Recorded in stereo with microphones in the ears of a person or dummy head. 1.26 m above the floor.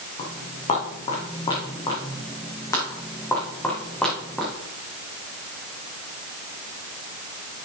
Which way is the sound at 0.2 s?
40° left (ahead or behind).